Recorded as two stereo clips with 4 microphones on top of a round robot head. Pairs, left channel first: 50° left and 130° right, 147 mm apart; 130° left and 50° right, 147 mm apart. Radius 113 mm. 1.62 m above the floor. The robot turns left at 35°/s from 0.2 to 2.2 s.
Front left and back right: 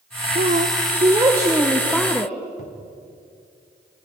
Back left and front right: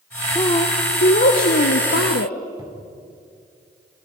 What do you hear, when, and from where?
0.3 s a woman speaking: 165° right, 1.0 m; by 2.4 s 130° left, 1.0 m
2.6 s a cupboard door: 15° left, 2.0 m